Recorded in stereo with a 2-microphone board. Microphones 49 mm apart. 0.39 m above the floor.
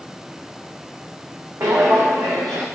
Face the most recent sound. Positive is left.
turn(degrees=-70)  # may be behind; listen again after turning